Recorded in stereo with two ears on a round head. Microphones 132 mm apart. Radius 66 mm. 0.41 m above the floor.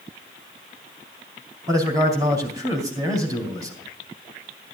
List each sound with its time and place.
1.7 s a man speaking: 25° right (ahead or behind), 3 m